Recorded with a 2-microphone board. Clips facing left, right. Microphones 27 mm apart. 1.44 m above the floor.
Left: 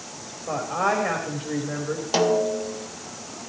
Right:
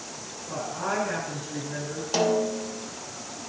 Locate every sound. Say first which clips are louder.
0.5 s a woman speaking: left 7 dB; 80° left, 4.5 m
2.1 s a snare drum: left 3 dB; 20° left (ahead or behind), 2 m